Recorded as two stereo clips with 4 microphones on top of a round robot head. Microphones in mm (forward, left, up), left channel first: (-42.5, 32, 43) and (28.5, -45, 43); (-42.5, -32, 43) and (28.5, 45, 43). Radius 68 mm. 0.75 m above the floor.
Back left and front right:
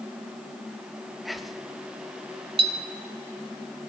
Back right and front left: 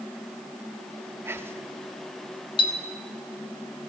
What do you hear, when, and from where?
1.2 s whispering: 40° left, 0.6 m
2.6 s a clink: 85° right, 0.8 m